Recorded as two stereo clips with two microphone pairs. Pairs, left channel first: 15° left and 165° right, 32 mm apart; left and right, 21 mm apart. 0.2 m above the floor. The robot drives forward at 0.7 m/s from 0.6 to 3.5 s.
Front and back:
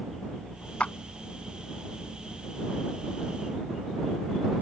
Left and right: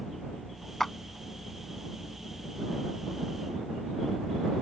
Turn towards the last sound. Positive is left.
turn(degrees=150)